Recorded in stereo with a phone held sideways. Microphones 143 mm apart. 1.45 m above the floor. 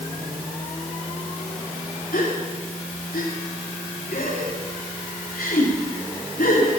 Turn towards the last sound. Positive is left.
turn(degrees=85)